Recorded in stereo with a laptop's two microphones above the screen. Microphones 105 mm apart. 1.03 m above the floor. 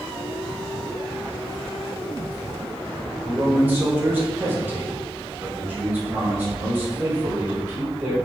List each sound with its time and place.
3.2 s a man speaking: 20° right (ahead or behind), 1.2 m